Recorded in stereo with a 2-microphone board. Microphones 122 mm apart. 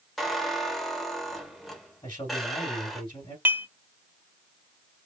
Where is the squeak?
Centre (ahead or behind), 1.7 m.